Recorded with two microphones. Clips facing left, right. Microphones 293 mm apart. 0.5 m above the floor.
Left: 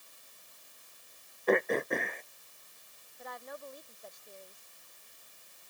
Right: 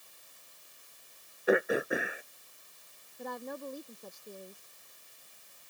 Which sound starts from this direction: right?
A woman speaking, at 3.2 s.